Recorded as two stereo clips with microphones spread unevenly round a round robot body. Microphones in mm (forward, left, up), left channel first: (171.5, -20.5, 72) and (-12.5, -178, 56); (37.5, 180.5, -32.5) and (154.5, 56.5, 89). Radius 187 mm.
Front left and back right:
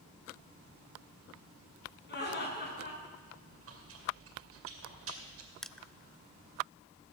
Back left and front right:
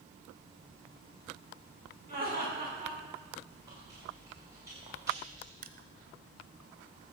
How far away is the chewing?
About 2.5 m.